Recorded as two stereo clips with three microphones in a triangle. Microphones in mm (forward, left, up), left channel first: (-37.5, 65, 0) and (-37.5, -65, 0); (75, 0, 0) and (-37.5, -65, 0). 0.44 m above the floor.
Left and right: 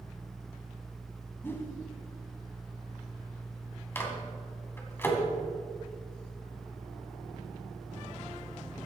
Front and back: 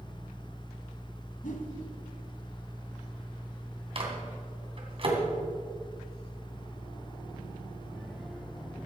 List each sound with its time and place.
1.4 s a whoosh: 15° left, 1.6 m
4.0 s a microwave: 165° left, 2.5 m